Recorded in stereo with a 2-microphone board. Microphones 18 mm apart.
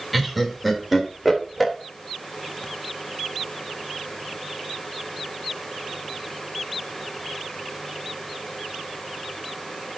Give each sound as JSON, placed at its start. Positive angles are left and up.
{"t": 0.1, "sound": "laughter", "side_deg": -5, "distance_m": 3.0}